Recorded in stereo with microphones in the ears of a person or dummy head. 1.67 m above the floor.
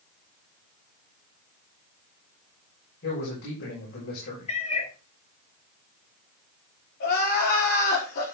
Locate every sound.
3.0 s a man speaking: 70° left (ahead or behind), 6 m
4.5 s a cat meowing: 45° left (ahead or behind), 1.9 m
7.0 s crying: 60° left (ahead or behind), 4 m